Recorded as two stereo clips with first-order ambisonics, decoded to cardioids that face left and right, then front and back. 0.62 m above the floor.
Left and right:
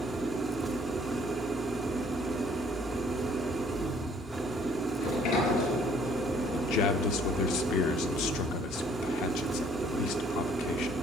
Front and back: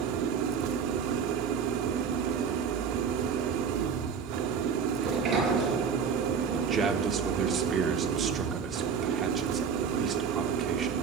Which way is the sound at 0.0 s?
175° right.